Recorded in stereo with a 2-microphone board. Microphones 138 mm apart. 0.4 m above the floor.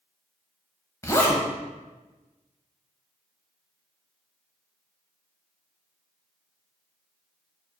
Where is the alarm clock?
No alarm clock in this recording.